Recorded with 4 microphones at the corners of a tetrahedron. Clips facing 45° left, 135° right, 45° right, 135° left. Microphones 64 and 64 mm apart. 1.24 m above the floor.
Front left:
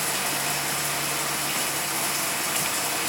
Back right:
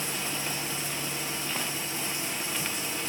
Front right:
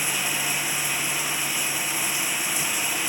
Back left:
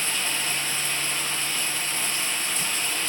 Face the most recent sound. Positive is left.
turn(degrees=30)